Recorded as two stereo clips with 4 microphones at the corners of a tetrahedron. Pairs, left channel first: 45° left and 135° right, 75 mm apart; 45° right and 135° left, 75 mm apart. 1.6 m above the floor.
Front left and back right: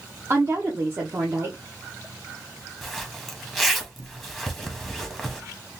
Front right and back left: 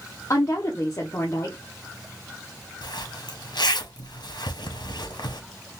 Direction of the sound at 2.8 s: 45° right.